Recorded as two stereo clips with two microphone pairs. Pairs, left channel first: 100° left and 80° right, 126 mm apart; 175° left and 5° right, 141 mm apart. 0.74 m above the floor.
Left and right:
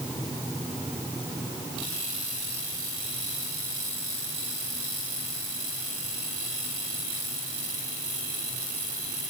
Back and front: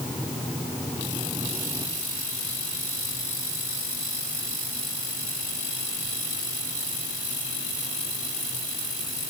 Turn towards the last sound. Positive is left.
No sound to turn to.